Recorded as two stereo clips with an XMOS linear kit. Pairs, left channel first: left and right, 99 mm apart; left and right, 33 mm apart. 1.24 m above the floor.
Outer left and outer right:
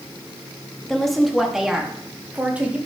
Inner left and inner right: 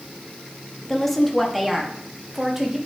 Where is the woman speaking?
5° left (ahead or behind), 1.6 m; by 2.8 s 15° right (ahead or behind), 2.5 m.